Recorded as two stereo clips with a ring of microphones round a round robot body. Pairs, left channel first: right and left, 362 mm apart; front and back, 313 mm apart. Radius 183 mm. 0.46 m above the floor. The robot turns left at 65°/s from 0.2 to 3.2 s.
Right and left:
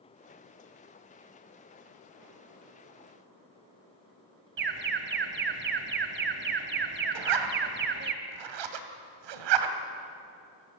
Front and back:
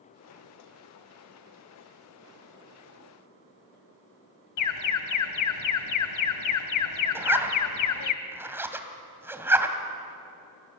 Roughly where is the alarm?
Ahead left.